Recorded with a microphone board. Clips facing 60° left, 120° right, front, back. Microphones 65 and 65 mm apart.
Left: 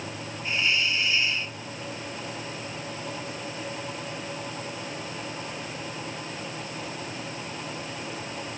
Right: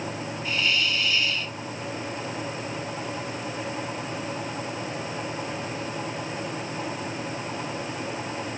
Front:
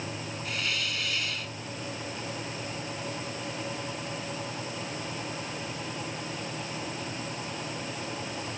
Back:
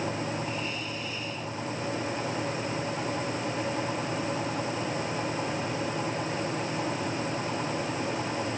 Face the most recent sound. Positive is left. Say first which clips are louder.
# even, even
turn(degrees=-5)